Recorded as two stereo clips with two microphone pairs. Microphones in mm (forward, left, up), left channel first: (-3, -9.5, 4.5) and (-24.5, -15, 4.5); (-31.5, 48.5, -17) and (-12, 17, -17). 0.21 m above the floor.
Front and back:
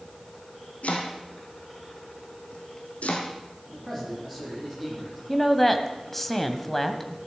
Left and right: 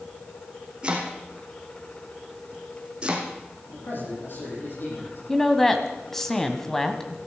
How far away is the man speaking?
About 10 m.